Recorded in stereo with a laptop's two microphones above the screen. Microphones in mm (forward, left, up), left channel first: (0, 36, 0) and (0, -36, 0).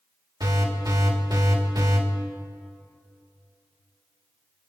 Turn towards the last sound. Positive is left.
turn(degrees=-70)  # may be behind; listen again after turning